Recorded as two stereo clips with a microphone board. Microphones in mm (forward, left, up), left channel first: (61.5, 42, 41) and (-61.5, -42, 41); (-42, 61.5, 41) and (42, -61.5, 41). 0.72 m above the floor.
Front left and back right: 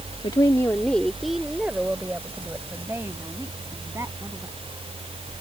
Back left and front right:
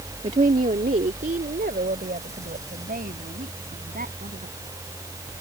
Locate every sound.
0.2 s a woman speaking: 20° right; by 4.7 s 75° right